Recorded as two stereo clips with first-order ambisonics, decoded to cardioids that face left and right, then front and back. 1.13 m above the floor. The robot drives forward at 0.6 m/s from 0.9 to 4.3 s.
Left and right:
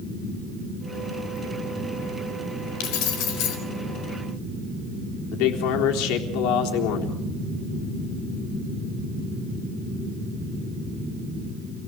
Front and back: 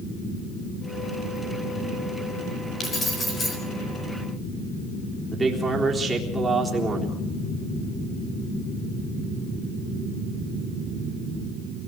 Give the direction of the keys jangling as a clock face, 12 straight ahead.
10 o'clock.